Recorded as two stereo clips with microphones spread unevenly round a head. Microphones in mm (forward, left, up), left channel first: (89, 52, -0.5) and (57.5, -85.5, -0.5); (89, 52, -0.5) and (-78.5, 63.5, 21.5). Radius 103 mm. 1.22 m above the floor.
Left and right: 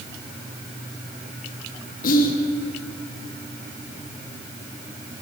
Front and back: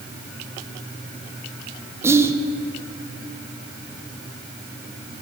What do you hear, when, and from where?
2.0 s whispering: 95° left, 0.5 m